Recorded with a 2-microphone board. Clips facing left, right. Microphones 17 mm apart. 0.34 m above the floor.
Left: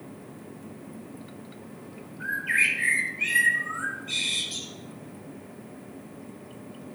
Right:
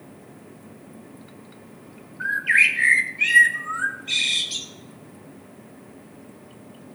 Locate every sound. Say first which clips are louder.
2.2 s a bird: right 6 dB; 35° right (ahead or behind), 1.0 m